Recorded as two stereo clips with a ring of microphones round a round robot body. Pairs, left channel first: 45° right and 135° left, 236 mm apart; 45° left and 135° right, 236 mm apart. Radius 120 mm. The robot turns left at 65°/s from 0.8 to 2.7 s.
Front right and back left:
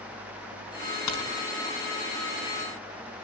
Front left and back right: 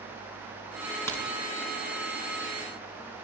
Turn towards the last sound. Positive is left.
turn(degrees=-140)